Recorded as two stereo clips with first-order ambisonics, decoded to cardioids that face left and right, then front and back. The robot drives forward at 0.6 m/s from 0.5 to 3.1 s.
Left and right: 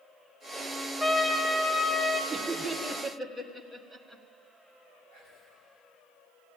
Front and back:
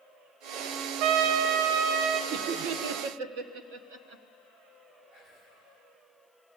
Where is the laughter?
165° right, 0.9 m; by 4.2 s 170° right, 1.4 m.